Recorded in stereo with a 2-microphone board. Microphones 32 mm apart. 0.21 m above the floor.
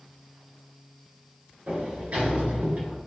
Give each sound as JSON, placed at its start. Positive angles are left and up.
{"t": 1.7, "sound": "a sliding door", "side_deg": -55, "distance_m": 3.0}